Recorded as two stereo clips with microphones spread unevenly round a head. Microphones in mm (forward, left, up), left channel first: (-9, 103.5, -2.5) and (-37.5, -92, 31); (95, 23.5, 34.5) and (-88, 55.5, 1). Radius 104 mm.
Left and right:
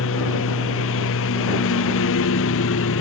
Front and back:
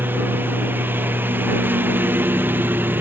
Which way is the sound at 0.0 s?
90° left.